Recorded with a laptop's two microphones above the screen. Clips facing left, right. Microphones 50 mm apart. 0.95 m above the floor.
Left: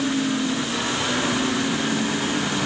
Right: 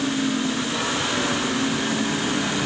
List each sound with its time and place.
Only background noise.